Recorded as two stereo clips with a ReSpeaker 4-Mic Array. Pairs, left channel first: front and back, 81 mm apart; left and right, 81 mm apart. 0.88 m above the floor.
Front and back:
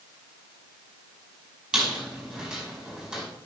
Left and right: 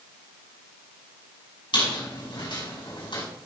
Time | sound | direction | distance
1.7 | a squeak | 95° left | 5.5 m